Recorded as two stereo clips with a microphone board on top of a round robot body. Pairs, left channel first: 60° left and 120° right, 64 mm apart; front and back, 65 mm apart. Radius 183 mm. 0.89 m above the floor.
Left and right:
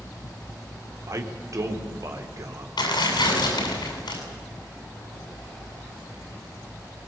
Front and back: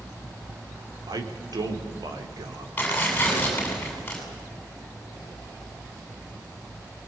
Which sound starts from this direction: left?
Tearing paper, at 2.8 s.